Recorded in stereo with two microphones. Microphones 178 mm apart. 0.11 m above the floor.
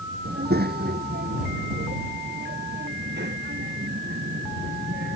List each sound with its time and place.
0.2 s a child speaking: 60° right (ahead or behind); by 5.2 s 75° right (ahead or behind)